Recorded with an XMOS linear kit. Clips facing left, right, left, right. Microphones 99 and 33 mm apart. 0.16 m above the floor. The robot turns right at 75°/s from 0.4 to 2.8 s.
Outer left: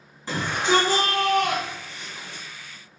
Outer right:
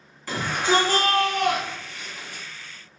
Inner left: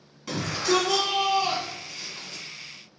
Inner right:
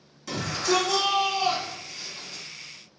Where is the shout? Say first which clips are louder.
Even, inner left 1 dB; 20° left (ahead or behind), 1.5 m; by 2.4 s 15° right (ahead or behind), 1.5 m.